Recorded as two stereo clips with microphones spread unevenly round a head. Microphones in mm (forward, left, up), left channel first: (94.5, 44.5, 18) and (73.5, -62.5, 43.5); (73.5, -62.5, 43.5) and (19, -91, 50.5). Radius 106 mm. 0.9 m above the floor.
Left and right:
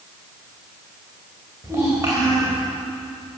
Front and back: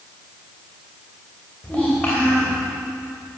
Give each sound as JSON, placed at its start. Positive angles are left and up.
{"t": 1.6, "sound": "a child speaking", "azimuth_deg": -40, "distance_m": 3.0}